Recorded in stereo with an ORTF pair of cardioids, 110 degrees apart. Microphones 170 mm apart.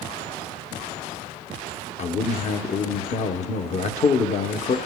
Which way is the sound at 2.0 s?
45° left.